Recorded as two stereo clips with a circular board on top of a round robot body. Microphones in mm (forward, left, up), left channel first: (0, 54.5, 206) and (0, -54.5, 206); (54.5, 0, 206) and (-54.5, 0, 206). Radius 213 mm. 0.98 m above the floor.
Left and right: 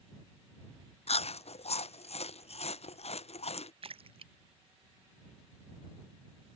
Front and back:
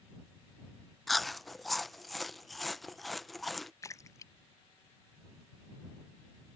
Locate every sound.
1.1 s chewing: 90° left
3.8 s a splash: 60° right